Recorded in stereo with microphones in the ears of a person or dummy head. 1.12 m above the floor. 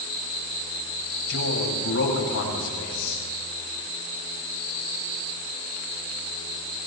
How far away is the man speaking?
About 7.5 m.